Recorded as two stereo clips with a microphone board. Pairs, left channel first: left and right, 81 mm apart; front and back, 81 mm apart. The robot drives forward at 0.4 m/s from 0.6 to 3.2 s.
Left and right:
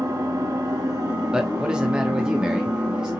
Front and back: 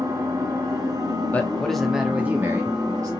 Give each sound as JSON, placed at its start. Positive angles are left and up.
{"t": 0.0, "sound": "an engine running", "azimuth_deg": -135, "distance_m": 1.1}
{"t": 1.3, "sound": "a man speaking", "azimuth_deg": -30, "distance_m": 0.6}